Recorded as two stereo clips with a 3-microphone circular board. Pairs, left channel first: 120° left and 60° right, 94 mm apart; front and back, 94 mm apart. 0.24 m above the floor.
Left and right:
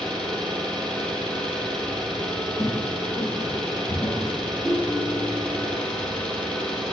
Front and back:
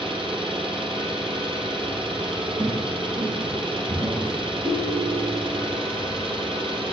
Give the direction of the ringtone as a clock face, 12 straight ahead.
5 o'clock.